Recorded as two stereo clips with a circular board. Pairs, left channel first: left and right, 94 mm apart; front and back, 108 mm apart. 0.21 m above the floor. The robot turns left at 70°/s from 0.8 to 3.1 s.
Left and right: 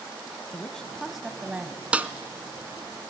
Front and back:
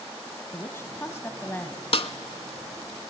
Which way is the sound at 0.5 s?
20° left.